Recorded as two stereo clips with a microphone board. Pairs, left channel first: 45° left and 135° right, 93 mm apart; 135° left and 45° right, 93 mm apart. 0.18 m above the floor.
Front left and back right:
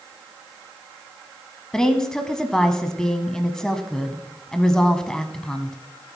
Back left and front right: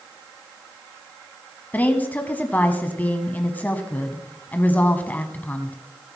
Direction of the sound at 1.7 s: 115° left.